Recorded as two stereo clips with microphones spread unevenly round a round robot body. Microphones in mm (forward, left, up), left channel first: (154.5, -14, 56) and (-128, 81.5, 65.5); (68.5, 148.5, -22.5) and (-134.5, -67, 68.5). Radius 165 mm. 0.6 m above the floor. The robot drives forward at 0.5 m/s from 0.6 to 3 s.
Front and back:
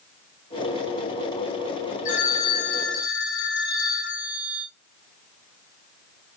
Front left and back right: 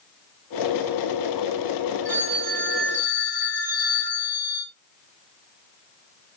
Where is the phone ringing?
50° right, 1.1 m; by 4.7 s 75° right, 0.9 m.